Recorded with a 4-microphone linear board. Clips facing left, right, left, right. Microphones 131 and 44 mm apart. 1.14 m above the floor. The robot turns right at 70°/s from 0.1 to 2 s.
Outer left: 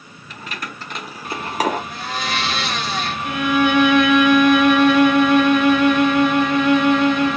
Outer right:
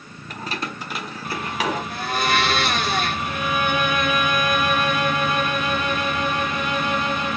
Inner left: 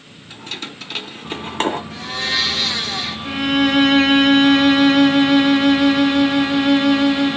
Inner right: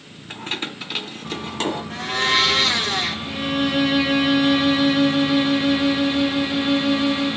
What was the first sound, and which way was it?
Keys jangling, 50° right (ahead or behind).